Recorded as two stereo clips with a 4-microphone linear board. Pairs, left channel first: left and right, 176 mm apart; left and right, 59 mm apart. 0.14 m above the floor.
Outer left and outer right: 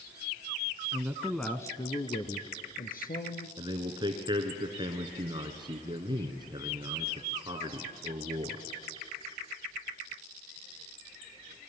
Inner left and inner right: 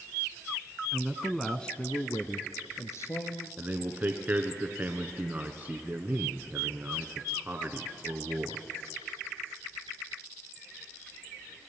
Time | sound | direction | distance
0.9 | a man speaking | 20° right (ahead or behind) | 1.1 m
3.6 | a man speaking | 30° right (ahead or behind) | 1.8 m